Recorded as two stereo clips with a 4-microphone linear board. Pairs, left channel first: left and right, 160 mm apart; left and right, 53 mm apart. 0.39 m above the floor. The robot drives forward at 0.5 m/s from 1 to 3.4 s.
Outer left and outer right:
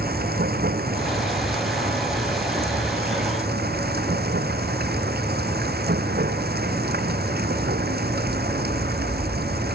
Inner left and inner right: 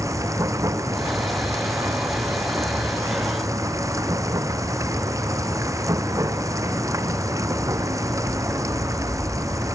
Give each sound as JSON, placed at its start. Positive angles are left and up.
{"t": 0.0, "sound": "running water", "side_deg": -70}